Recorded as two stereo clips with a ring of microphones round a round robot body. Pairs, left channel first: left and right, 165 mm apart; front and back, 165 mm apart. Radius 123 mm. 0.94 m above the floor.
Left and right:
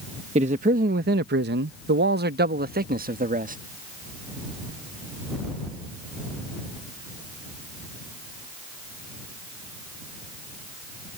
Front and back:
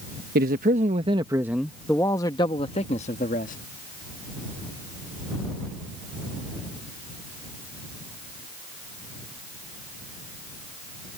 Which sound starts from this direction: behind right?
A man speaking, at 0.3 s.